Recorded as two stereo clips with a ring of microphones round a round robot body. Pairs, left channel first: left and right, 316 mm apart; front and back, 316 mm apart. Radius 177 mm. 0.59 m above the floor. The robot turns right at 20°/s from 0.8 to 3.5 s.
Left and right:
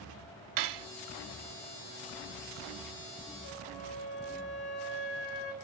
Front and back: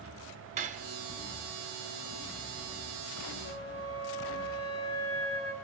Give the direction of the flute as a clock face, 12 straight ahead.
11 o'clock.